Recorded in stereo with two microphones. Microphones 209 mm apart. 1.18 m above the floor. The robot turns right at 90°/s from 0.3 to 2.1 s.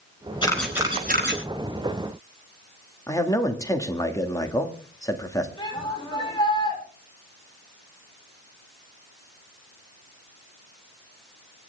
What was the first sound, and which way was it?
A camera shutter, 25° left (ahead or behind).